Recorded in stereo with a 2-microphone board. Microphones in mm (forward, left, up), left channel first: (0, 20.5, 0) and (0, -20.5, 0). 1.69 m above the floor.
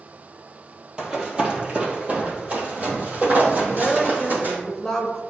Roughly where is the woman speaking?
Centre.